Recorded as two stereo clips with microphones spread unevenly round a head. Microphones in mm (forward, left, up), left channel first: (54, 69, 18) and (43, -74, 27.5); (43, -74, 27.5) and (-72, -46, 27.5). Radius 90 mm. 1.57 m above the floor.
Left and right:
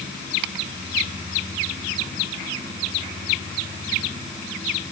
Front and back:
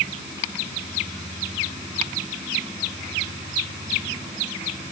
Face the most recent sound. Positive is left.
No sound to turn to.